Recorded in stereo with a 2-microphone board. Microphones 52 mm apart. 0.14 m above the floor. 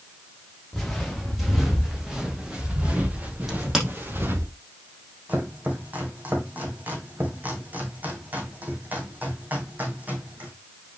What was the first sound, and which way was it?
Footsteps, 5° left (ahead or behind).